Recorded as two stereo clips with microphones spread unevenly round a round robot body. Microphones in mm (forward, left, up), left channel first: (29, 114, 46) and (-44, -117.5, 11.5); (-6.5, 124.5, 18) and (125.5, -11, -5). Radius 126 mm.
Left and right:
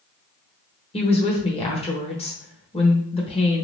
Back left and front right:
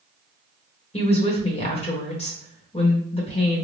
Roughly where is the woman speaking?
Behind left.